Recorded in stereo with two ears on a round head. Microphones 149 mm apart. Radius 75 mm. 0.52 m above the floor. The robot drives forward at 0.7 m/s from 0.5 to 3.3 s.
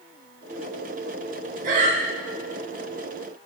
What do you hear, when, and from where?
1.6 s breathing: 55° right (ahead or behind), 0.6 m; by 2.0 s 40° right (ahead or behind), 0.8 m